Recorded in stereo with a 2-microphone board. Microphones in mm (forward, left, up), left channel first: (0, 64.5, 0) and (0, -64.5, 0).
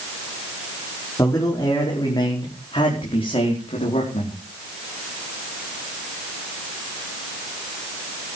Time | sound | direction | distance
1.2 | a man speaking | 25° left (ahead or behind) | 5 m